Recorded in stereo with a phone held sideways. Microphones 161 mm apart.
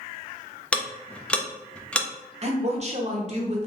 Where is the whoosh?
I don't hear a whoosh.